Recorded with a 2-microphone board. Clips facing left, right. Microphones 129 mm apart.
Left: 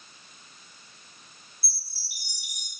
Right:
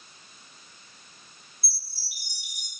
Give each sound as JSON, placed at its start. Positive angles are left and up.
{"t": 1.6, "sound": "a chime", "side_deg": 85, "distance_m": 2.5}